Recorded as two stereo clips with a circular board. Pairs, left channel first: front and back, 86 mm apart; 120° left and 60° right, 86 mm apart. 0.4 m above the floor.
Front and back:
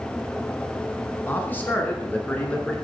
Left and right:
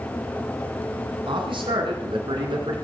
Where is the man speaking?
65° right, 4.5 m; by 2.8 s 75° right, 5.5 m.